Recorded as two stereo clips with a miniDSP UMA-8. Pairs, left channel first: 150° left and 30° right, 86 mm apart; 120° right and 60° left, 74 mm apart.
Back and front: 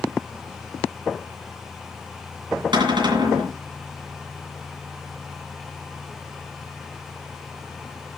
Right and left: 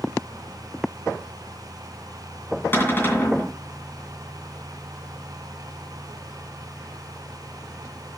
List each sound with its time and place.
2.7 s a cupboard door: 60° right, 2 m